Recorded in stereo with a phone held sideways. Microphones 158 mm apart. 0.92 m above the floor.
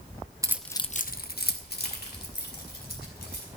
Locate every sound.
0.4 s keys jangling: 20° right (ahead or behind), 0.7 m; by 3.5 s 80° left, 4 m